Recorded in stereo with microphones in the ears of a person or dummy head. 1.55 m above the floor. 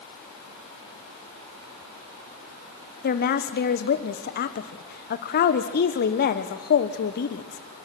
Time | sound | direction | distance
3.0 | a woman speaking | 50° left (ahead or behind) | 1.1 m